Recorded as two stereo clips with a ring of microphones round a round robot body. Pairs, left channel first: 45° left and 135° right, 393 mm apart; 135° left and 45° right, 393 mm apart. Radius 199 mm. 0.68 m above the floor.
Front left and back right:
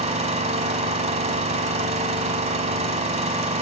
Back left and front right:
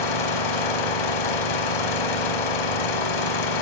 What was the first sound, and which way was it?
An engine running, 150° left.